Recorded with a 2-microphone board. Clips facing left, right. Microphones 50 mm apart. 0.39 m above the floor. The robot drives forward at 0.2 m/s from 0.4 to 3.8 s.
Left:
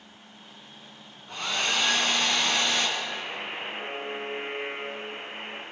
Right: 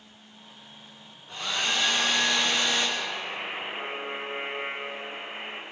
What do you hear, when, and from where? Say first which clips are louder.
1.3 s a hair dryer: left 1 dB; 55° left (ahead or behind), 3.5 m
3.0 s a buzzer: right 1 dB; centre (ahead or behind), 3.5 m